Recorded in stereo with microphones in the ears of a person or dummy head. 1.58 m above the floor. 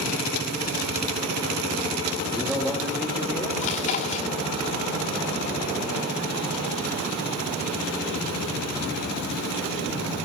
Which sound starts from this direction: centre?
A man speaking, at 2.2 s.